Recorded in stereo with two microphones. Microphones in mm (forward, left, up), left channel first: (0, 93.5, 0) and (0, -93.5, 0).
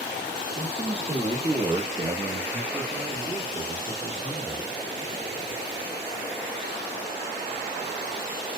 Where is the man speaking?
30° right (ahead or behind), 1.2 m; by 4.7 s 10° left (ahead or behind), 1.5 m.